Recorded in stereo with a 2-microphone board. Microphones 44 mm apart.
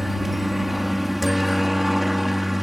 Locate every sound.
0.0 s a helicopter: 5° right (ahead or behind)